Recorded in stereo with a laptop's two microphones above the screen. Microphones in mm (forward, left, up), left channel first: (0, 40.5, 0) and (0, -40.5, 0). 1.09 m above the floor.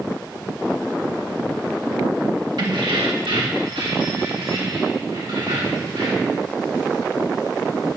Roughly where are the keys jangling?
Right.